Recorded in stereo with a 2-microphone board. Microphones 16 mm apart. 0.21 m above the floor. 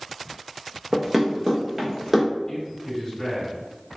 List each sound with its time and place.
0.9 s running footsteps: 15° right (ahead or behind), 0.8 m; by 2.3 s 10° right (ahead or behind), 1.6 m
2.5 s a man speaking: 15° left (ahead or behind), 1.9 m